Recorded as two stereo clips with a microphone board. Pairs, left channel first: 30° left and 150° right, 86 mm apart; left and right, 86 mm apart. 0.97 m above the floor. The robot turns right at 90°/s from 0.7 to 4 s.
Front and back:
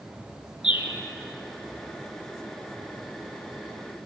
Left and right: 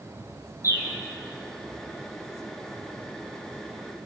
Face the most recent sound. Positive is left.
turn(degrees=-25)